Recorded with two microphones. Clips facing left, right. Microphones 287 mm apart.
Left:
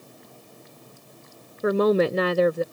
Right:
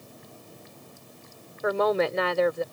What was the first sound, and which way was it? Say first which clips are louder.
A woman speaking: left 5 dB; 40° left (ahead or behind).